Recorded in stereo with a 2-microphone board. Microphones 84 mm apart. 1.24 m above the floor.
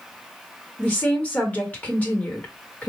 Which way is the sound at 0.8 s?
20° left (ahead or behind).